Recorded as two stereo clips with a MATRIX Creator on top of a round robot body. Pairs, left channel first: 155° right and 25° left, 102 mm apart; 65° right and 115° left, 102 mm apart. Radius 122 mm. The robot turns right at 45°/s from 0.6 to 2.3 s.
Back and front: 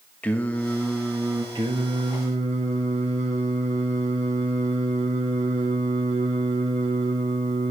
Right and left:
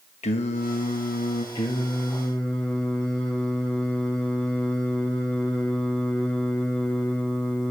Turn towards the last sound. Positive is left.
turn(degrees=10)